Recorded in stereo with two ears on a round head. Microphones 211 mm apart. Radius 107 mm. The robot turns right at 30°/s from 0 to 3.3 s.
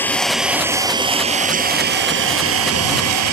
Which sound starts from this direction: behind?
An engine running, at 0.0 s.